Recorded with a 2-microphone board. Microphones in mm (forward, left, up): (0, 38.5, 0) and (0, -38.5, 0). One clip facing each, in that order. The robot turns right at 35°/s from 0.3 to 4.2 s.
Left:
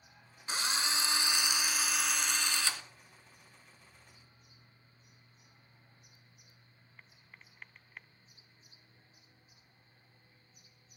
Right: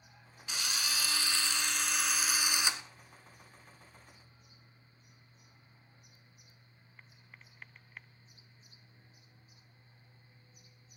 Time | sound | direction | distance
0.5 | a drill | 125° left | 0.7 m